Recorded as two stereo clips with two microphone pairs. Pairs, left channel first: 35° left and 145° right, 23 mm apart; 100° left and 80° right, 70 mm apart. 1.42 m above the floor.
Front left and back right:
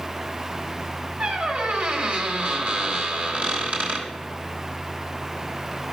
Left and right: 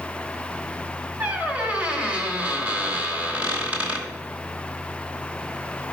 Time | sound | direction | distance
1.2 | a squeak | 145° right | 1.9 m